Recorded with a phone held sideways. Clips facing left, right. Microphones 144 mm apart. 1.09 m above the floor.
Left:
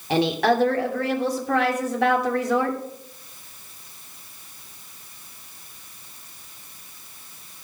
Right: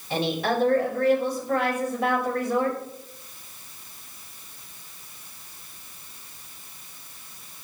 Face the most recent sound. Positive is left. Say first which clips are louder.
# left 5 dB
turn(degrees=80)